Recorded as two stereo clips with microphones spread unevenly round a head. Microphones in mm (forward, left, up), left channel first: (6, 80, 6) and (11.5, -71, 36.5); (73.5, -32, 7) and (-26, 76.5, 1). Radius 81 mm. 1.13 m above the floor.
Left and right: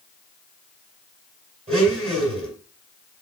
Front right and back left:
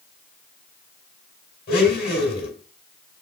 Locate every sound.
1.7 s a blender: 35° right, 4.5 m